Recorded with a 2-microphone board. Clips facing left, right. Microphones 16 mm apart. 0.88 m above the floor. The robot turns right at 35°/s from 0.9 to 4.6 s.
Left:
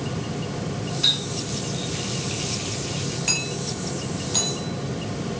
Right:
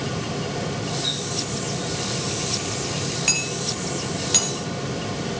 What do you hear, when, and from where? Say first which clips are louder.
1.0 s a running tap: left 8 dB; 60° left (ahead or behind), 6 m; by 3.2 s 15° right (ahead or behind), 6 m
3.3 s hammering: right 2 dB; 15° right (ahead or behind), 6 m; by 5.4 s 65° right (ahead or behind), 6 m